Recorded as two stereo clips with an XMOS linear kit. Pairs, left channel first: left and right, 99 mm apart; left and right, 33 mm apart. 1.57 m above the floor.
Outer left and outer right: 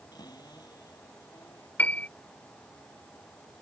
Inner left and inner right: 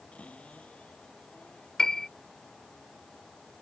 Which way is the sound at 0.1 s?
40° left (ahead or behind).